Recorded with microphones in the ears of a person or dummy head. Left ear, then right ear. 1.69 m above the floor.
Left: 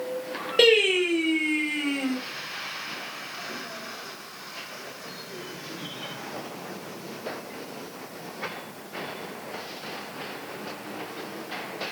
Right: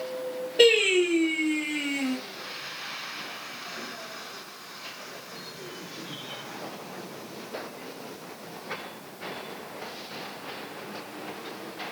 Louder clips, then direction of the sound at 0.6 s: Left 1 dB; 55° left (ahead or behind).